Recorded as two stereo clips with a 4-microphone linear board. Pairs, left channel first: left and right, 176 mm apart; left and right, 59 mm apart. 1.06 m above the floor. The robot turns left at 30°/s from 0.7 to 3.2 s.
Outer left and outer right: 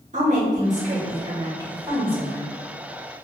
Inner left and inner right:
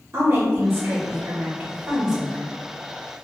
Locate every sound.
0.1 s a woman speaking: 130° right, 1.2 m; by 2.5 s 175° left, 1.2 m